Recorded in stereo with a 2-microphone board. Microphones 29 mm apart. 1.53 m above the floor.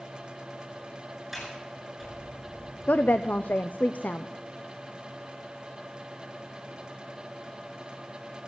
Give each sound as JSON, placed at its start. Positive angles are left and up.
{"t": 1.3, "sound": "a sliding door", "side_deg": 0, "distance_m": 9.0}
{"t": 2.9, "sound": "a woman speaking", "side_deg": 80, "distance_m": 0.7}